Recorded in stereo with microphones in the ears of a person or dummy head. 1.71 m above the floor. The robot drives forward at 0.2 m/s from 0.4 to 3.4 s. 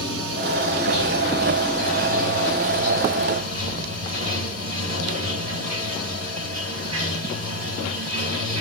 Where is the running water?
60° right (ahead or behind), 1.0 m; by 8.6 s 40° right (ahead or behind), 1.3 m.